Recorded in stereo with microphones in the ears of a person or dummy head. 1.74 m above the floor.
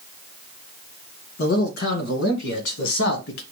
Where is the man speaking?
55° left (ahead or behind), 2 m; by 3.4 s 70° left (ahead or behind), 1.2 m.